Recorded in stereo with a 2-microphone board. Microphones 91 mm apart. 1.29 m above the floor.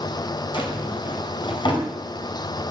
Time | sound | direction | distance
0.5 | a drawer | 60° left (ahead or behind) | 4.5 m